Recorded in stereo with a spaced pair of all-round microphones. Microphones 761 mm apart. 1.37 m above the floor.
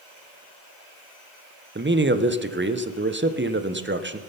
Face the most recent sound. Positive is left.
turn(degrees=-15)  # may be behind; listen again after turning